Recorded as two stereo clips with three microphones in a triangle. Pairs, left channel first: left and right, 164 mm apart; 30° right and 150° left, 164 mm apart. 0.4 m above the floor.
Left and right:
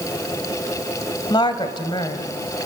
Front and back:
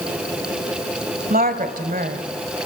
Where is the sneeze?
No sneeze in this recording.